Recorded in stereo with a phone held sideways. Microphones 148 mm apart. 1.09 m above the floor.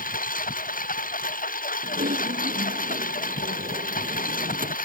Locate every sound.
0.0 s a lawn mower: 65° left (ahead or behind)
1.8 s typing on a keyboard: 70° right (ahead or behind)